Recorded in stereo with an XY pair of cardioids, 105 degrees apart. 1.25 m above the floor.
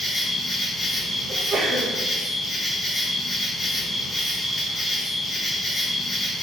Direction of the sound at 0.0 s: 20° left.